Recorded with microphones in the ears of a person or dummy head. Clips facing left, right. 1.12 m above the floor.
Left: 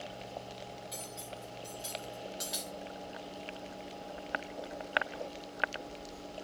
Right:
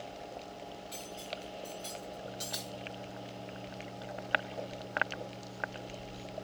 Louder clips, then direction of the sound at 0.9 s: Right 2 dB; 5° left (ahead or behind).